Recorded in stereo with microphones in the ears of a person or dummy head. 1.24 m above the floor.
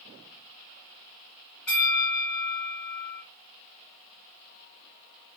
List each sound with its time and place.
1.7 s a bell: 5° left (ahead or behind), 2 m